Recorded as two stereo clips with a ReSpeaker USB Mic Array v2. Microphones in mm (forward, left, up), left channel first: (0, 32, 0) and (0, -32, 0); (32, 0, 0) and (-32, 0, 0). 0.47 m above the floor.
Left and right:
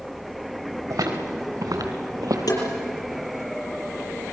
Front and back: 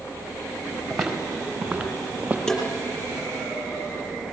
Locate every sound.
0.9 s footsteps: 95° right, 4.5 m; by 2.4 s 110° right, 5.5 m
2.5 s tapping: 75° left, 6 m